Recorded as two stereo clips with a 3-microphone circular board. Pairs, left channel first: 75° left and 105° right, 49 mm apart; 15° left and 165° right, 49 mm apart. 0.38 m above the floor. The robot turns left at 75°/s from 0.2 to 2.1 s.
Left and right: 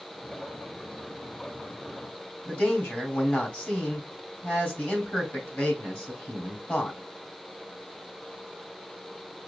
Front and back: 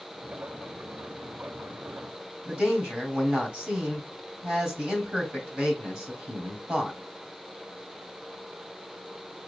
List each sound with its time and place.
2.5 s a man speaking: 115° left, 2.5 m